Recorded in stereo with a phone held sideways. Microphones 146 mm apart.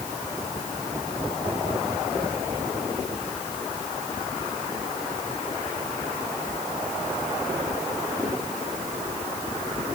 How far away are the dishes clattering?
No dishes clattering in this recording.